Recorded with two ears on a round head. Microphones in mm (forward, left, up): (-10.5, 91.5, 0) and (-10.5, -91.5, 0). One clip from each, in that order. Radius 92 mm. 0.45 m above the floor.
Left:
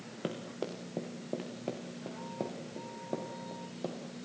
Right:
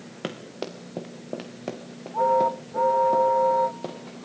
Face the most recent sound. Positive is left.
turn(degrees=-20)  # may be behind; listen again after turning